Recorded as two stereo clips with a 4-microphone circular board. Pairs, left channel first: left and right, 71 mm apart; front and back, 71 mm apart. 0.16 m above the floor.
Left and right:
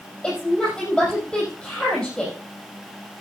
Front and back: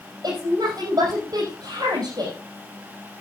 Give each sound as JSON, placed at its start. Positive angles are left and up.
{"t": 0.2, "sound": "a woman speaking", "azimuth_deg": 170, "distance_m": 5.5}